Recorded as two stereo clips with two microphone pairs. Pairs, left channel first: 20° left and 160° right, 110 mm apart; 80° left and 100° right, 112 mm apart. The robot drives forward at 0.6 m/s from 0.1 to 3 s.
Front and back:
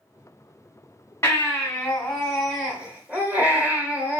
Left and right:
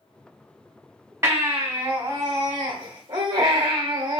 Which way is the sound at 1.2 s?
35° right.